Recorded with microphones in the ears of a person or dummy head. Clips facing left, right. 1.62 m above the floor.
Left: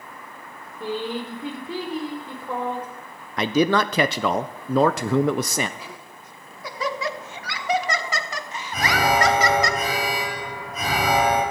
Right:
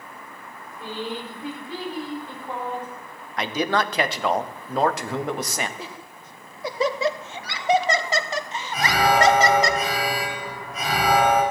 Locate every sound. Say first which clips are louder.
0.8 s a woman speaking: left 4 dB; 85° left, 5 m; by 2.9 s 75° left (ahead or behind), 5 m
3.4 s a man speaking: left 4 dB; 65° left (ahead or behind), 1.0 m
5.8 s laughter: right 2 dB; 25° right (ahead or behind), 1.2 m
8.7 s an alarm: right 1 dB; 70° left (ahead or behind), 8 m